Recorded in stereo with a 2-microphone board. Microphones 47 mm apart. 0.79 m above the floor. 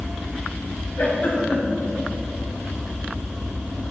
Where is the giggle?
40° left (ahead or behind), 1.7 m.